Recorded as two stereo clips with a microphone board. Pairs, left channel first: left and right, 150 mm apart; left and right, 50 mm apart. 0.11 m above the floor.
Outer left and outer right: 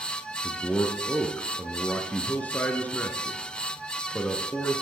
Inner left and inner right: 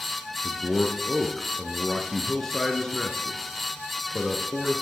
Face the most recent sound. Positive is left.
turn(degrees=10)  # may be behind; listen again after turning